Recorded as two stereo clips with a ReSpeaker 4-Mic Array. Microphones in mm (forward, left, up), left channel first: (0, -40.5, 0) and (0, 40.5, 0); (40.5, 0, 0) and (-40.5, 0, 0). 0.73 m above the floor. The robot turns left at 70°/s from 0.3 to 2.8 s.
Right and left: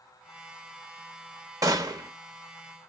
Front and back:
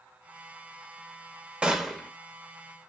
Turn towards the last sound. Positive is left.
turn(degrees=25)